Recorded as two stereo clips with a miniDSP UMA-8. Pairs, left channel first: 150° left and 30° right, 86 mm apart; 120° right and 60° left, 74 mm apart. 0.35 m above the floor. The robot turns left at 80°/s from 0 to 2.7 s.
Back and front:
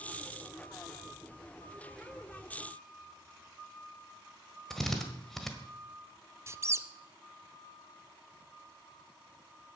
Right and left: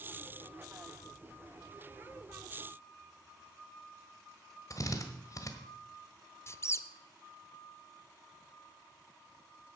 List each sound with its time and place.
4.7 s a drill: 125° right, 1.4 m
6.5 s a squeak: 80° right, 0.5 m